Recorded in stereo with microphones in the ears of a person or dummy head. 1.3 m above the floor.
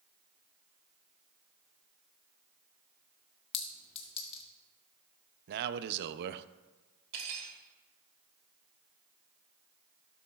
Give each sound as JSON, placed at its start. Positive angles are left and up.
{"t": 3.5, "sound": "a clink", "side_deg": 30, "distance_m": 1.5}
{"t": 5.5, "sound": "a man speaking", "side_deg": -60, "distance_m": 0.5}
{"t": 7.1, "sound": "cutlery clinking", "side_deg": -45, "distance_m": 2.5}